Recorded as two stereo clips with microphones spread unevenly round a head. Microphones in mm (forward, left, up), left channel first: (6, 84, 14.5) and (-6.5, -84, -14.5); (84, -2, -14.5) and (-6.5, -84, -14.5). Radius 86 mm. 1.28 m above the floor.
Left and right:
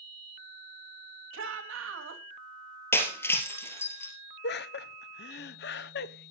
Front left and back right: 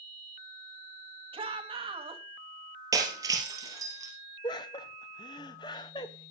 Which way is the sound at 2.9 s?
155° left.